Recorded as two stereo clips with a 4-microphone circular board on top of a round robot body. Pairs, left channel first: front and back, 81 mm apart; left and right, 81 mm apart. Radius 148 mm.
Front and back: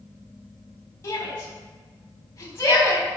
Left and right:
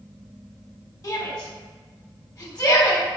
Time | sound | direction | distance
1.0 | a shout | 55° left | 3.5 m